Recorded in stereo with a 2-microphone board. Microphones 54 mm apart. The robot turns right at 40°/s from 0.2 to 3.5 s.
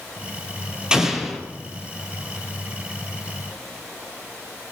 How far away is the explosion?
About 3 m.